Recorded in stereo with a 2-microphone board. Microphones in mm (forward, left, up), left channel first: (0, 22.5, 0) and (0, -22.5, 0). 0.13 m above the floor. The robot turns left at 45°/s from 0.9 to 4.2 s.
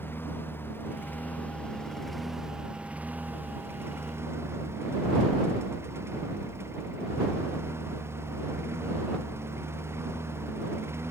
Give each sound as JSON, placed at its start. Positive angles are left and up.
{"t": 0.0, "sound": "a lawn mower", "side_deg": 60}